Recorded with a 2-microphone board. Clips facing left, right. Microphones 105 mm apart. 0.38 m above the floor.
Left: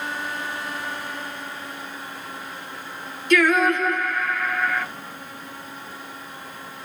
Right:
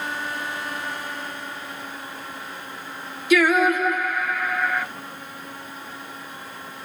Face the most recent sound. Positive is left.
turn(degrees=-5)  # may be behind; listen again after turning